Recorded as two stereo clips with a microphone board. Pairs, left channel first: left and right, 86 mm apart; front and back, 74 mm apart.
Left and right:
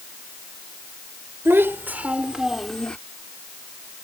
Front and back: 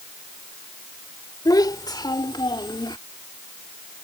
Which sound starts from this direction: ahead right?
A child speaking, at 1.4 s.